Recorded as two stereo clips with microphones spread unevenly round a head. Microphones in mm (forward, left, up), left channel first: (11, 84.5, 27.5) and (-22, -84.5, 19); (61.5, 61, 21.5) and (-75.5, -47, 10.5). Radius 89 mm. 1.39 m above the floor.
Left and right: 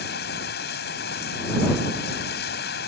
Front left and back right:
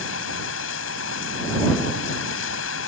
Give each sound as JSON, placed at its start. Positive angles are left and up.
{"t": 0.0, "sound": "running water", "azimuth_deg": 45}